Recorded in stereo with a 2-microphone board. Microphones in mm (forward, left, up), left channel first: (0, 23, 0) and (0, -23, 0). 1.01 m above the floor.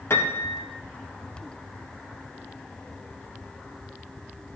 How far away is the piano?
About 0.9 m.